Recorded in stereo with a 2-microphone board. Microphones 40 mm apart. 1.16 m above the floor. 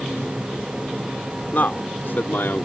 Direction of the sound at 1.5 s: 50° left (ahead or behind).